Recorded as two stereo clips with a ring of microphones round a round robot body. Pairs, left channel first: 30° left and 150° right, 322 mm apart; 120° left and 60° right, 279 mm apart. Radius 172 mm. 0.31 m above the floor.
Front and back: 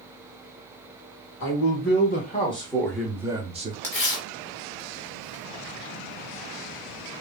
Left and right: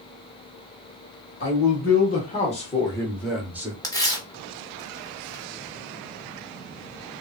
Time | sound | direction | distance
1.4 | a man speaking | 75° left | 1.4 m
3.8 | tearing paper | 40° left | 1.3 m